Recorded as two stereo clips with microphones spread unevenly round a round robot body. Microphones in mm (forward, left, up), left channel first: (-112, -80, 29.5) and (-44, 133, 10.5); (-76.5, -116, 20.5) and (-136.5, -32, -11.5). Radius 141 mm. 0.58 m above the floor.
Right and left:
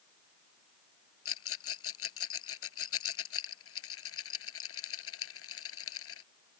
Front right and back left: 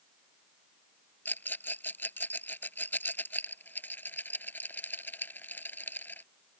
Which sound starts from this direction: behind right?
A rattle, at 1.2 s.